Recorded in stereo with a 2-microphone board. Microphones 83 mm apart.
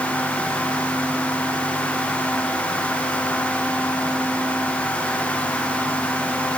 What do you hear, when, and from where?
Only background noise.